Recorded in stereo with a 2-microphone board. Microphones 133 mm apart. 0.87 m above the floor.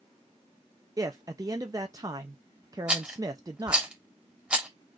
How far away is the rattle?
About 1.2 m.